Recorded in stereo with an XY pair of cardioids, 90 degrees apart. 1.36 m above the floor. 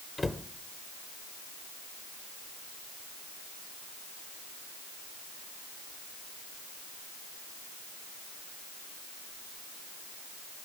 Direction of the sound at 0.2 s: 25° left.